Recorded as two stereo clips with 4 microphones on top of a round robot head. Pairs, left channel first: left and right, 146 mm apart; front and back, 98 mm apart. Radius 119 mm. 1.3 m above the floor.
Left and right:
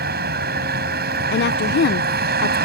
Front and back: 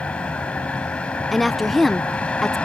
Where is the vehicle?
80° right.